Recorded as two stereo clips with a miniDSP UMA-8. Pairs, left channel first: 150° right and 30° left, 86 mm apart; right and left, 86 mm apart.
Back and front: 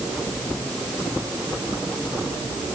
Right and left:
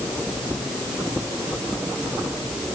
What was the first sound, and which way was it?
Only background noise.